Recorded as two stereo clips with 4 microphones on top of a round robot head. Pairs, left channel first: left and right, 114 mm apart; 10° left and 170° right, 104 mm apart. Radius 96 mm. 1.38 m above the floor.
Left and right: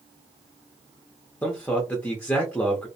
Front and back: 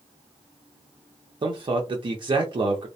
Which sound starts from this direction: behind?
A man speaking, at 1.4 s.